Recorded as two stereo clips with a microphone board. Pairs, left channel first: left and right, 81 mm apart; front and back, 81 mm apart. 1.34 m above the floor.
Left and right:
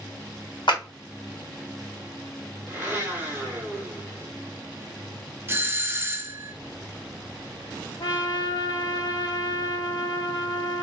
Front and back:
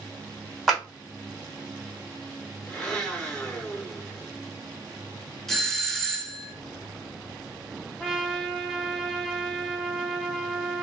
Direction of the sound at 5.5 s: 80° right.